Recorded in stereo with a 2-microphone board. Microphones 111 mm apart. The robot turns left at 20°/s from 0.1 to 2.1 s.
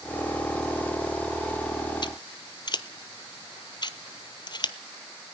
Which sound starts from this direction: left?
Scissors, at 2.0 s.